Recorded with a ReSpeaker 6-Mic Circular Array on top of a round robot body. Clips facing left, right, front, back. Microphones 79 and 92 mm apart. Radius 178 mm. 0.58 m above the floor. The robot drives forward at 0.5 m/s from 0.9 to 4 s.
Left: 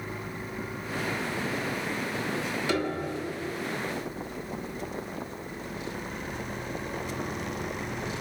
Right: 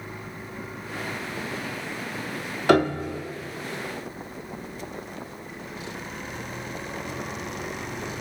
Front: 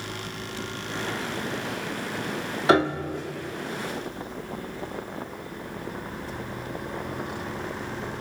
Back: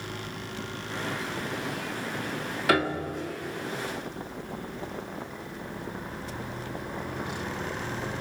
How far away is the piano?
About 1.0 m.